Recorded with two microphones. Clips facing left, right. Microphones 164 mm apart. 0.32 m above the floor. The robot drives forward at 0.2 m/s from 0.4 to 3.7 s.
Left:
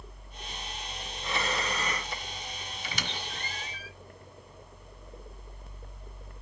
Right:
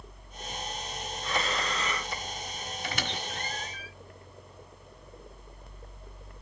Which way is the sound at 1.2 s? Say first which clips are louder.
Even; 15° left (ahead or behind).